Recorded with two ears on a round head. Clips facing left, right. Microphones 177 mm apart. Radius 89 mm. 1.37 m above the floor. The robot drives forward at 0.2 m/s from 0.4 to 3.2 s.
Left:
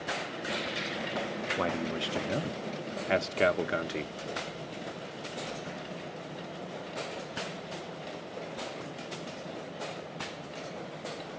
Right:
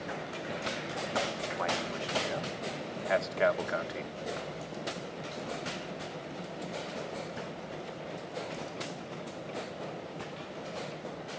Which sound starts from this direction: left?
A man speaking, at 1.6 s.